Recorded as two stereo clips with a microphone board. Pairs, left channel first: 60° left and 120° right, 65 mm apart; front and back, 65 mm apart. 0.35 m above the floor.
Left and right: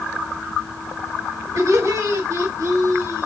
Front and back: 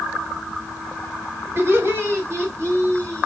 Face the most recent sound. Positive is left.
turn(degrees=-145)